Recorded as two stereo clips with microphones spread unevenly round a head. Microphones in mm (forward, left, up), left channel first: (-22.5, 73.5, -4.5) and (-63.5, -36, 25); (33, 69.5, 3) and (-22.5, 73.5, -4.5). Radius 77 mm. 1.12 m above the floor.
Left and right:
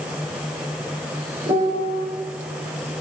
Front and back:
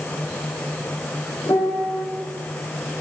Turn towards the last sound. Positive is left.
turn(degrees=-50)